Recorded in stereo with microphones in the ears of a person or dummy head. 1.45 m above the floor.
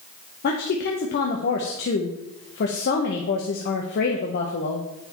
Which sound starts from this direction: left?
A woman speaking, at 0.4 s.